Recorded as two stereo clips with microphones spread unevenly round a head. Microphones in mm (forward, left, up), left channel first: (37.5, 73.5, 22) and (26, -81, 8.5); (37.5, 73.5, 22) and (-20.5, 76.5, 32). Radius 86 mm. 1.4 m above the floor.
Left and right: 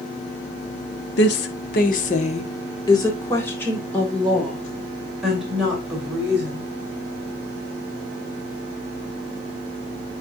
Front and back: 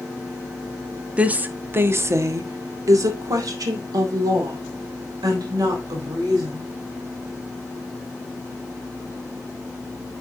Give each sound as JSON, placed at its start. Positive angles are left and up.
{"t": 1.2, "sound": "a woman speaking", "azimuth_deg": 105, "distance_m": 1.3}